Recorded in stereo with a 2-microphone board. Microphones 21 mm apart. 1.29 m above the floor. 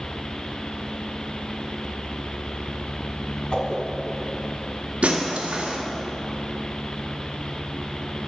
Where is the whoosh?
45° left (ahead or behind), 1.7 m.